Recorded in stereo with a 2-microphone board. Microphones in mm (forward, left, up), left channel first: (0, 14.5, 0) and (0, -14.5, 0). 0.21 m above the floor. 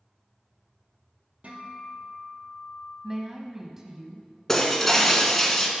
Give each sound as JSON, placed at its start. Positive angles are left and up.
{"t": 1.4, "sound": "a guitar", "side_deg": -50, "distance_m": 2.5}
{"t": 3.0, "sound": "a woman speaking", "side_deg": -15, "distance_m": 1.0}
{"t": 4.5, "sound": "breaking glass", "side_deg": 10, "distance_m": 1.5}